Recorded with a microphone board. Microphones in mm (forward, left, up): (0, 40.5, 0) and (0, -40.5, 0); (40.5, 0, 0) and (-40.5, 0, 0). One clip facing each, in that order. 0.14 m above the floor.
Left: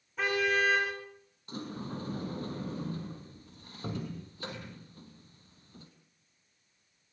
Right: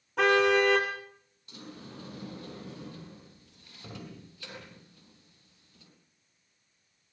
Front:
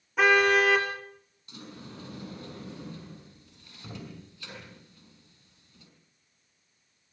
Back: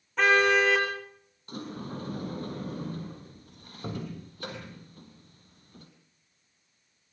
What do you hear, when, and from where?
0.2 s a car horn: 80° right, 6.5 m
1.5 s a sliding door: 140° left, 6 m